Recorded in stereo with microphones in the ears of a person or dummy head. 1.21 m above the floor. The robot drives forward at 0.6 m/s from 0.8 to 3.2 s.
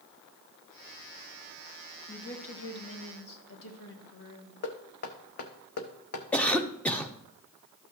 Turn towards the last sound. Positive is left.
turn(degrees=10)  # may be behind; listen again after turning